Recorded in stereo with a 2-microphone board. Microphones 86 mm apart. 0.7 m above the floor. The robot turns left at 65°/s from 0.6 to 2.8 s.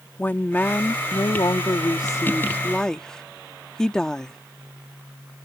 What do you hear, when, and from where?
0.2 s a woman speaking: 155° left; by 4.4 s 10° left